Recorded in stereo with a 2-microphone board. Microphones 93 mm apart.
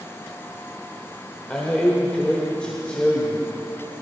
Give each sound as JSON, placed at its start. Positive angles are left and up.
{"t": 1.5, "sound": "a man speaking", "side_deg": 10, "distance_m": 1.8}